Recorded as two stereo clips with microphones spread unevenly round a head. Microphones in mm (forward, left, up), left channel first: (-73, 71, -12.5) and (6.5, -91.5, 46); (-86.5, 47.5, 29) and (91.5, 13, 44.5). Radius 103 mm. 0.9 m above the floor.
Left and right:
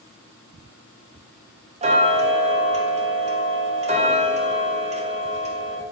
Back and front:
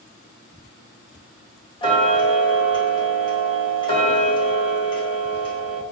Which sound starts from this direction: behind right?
Ticking, at 1.8 s.